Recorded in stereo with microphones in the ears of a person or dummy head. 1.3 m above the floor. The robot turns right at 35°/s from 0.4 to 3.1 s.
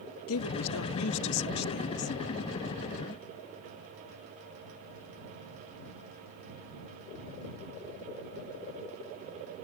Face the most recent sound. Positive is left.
turn(degrees=175)